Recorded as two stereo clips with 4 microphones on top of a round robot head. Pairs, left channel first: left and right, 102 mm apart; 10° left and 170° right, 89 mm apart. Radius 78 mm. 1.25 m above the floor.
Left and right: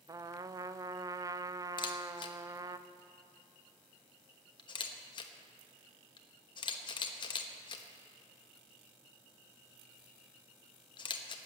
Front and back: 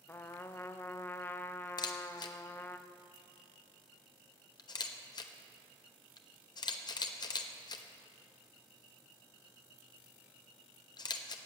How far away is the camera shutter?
About 1.1 m.